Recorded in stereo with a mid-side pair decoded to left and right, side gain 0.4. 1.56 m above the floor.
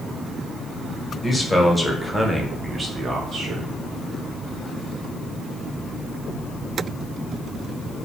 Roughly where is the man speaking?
Ahead.